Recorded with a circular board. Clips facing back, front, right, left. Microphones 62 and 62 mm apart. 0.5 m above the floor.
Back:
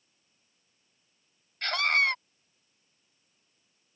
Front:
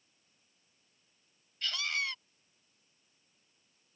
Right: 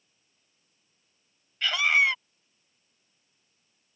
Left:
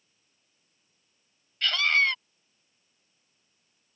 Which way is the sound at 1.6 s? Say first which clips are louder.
Back 10 dB, right 1 dB; 165° right.